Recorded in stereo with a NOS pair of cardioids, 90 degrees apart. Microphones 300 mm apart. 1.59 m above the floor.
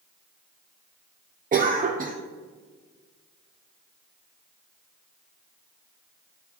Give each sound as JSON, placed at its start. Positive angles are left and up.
{"t": 1.5, "sound": "a cough", "azimuth_deg": -30, "distance_m": 0.5}